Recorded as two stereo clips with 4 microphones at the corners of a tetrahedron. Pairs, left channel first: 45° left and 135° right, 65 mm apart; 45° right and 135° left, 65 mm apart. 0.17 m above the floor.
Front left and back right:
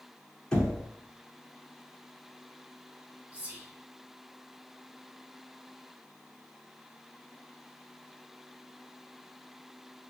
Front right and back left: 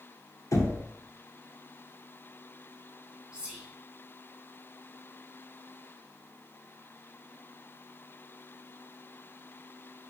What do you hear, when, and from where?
0.5 s knocking: 30° right, 1.3 m
3.3 s whispering: 175° right, 1.5 m